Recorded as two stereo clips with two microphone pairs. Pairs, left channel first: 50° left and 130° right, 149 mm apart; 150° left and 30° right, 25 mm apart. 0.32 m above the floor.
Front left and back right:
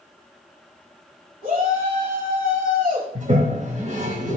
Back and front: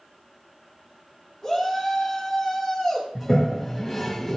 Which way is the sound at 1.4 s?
125° right.